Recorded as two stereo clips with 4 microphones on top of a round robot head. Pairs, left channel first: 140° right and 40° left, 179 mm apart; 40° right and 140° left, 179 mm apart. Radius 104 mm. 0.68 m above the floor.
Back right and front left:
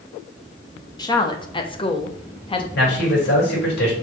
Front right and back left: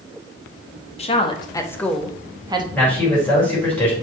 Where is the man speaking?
120° right, 3.5 m.